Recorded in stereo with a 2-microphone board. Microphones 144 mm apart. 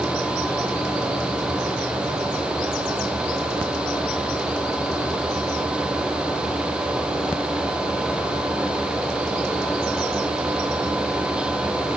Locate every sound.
Only background noise.